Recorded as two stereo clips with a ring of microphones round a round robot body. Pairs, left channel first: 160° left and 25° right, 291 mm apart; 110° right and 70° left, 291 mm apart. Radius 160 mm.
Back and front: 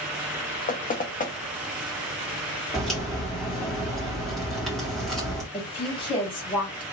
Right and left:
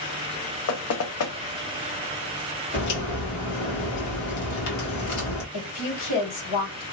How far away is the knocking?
About 0.7 m.